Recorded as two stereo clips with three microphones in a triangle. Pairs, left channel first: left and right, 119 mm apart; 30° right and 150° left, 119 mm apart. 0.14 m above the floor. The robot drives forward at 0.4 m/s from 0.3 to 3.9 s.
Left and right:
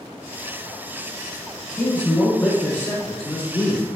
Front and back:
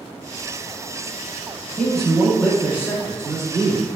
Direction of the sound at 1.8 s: 40° left.